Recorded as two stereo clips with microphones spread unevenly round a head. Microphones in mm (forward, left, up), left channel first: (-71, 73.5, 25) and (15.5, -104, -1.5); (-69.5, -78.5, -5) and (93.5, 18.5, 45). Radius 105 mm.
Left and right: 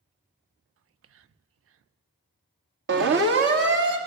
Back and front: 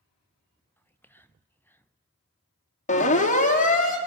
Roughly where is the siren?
Right.